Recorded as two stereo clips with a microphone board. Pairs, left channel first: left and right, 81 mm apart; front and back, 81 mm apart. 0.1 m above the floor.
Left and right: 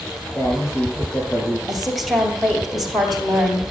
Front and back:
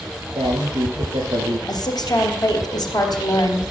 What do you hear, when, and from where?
0.3 s a man speaking: 155° left, 7 m
1.7 s a woman speaking: straight ahead, 2.5 m